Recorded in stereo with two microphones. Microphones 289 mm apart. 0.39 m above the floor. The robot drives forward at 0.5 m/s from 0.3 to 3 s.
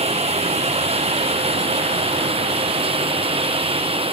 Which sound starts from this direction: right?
Running water, at 0.0 s.